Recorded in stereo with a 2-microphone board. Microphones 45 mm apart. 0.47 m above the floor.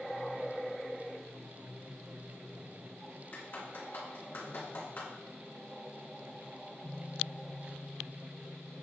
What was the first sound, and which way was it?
A clap, 55° left (ahead or behind).